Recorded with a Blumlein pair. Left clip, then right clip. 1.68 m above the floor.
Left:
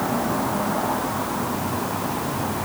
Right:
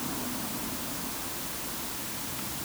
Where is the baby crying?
No baby crying in this recording.